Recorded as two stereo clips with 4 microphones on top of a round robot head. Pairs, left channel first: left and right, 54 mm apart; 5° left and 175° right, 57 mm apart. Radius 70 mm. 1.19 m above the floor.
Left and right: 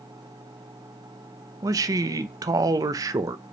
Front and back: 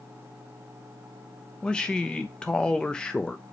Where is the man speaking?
70° right, 0.7 m.